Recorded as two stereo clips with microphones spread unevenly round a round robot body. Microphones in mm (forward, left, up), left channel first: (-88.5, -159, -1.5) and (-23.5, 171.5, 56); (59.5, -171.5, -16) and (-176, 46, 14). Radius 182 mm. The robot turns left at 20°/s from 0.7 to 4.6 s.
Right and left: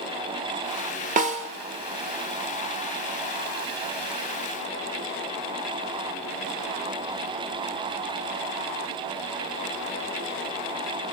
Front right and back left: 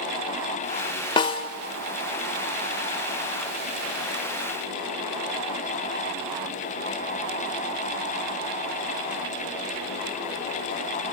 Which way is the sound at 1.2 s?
35° left.